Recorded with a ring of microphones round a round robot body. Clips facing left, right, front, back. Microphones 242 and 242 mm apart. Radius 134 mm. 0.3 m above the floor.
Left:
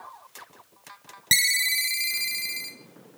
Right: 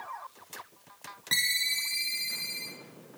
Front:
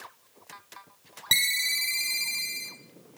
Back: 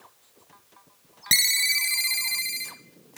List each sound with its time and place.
1.3 s a ringtone: 105° left, 0.7 m